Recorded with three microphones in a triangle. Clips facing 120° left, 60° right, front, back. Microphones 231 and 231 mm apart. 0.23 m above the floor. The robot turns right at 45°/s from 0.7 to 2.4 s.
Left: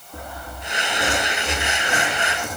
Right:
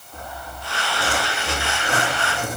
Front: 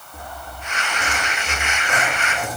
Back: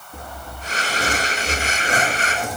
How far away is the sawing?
About 4 m.